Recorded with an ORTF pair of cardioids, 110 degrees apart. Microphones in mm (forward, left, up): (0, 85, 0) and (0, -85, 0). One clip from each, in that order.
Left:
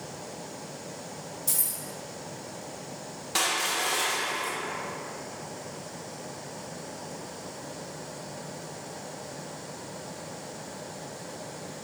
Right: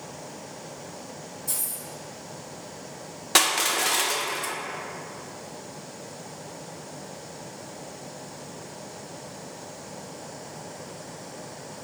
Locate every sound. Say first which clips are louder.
1.5 s keys jangling: left 2 dB; 50° left, 1.5 m
3.4 s crushing: right 5 dB; 50° right, 0.6 m